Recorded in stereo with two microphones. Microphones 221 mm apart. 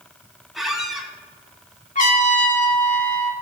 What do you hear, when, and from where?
0.6 s a squeak: centre (ahead or behind), 0.9 m
1.9 s a trumpet: 35° left (ahead or behind), 1.1 m